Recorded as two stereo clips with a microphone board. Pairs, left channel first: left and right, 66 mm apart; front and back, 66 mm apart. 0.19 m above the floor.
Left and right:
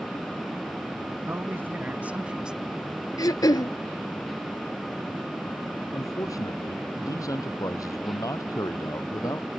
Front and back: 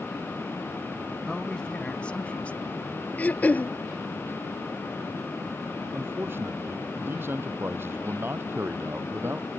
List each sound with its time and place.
1.3 s a man speaking: 75° right; by 3.1 s 5° right
3.2 s throat clearing: 65° left
5.9 s a man speaking: 125° left